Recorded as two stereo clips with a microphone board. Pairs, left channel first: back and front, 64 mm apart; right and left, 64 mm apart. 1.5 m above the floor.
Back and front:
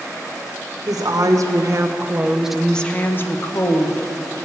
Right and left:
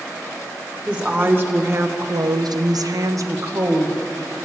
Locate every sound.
0.9 s a woman speaking: 20° left, 1.7 m; by 4.0 s 140° left, 1.7 m